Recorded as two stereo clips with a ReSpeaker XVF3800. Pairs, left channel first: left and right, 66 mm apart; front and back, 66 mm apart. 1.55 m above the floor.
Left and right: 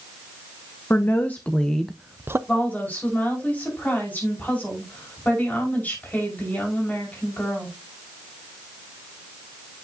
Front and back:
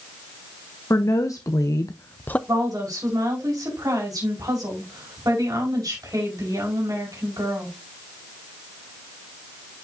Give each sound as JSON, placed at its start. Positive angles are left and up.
{"t": 0.9, "sound": "a woman speaking", "azimuth_deg": 35, "distance_m": 1.2}
{"t": 2.5, "sound": "a woman speaking", "azimuth_deg": 155, "distance_m": 5.0}